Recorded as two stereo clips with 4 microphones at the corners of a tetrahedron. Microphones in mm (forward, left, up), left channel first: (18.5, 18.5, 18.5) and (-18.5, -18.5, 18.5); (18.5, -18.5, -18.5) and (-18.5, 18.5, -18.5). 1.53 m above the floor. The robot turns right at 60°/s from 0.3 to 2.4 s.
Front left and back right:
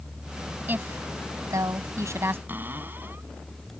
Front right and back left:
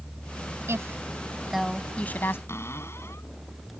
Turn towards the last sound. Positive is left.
turn(degrees=-85)